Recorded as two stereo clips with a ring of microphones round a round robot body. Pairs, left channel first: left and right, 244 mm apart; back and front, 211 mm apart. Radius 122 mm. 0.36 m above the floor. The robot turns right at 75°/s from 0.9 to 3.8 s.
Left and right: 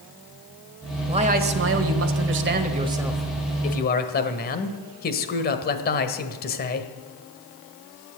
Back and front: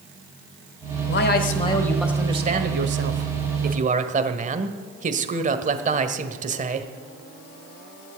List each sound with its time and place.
1.1 s a man speaking: 160° right, 1.3 m; by 6.9 s 45° left, 1.3 m